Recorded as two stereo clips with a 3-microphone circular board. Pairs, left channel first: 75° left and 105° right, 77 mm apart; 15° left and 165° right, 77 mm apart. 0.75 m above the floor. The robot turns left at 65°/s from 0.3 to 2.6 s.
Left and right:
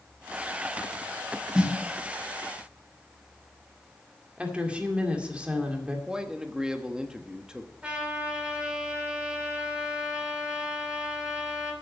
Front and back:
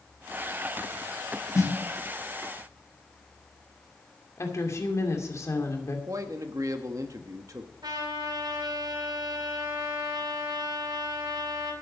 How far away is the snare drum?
About 1.5 m.